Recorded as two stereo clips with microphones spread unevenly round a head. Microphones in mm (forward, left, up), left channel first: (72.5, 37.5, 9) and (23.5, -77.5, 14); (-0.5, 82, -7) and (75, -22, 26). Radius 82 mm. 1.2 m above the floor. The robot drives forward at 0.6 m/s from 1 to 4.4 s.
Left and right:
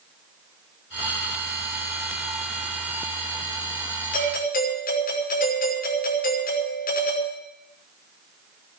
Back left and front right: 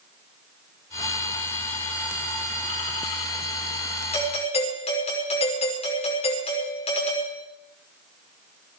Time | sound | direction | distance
4.1 | a doorbell | 85° left | 6 m